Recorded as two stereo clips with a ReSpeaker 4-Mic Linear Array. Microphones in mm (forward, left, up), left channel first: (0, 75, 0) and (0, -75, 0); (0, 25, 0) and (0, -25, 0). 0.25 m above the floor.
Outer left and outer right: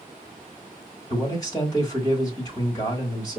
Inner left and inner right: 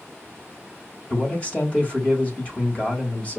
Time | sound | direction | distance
1.1 | a man speaking | 25° left (ahead or behind) | 1.6 m